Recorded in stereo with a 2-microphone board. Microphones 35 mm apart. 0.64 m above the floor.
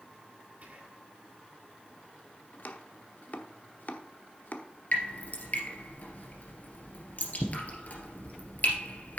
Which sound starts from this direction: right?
Whispering, at 0.6 s.